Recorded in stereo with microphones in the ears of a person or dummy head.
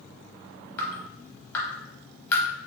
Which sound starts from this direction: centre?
Dripping, at 0.8 s.